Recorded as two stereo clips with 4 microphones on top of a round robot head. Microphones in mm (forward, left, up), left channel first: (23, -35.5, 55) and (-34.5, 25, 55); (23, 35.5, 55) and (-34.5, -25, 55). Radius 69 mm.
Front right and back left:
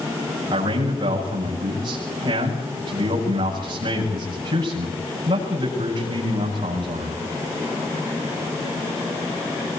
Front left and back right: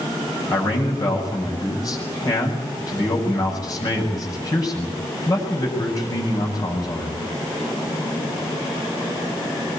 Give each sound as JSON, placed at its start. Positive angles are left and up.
{"t": 0.5, "sound": "a man speaking", "azimuth_deg": 90, "distance_m": 8.0}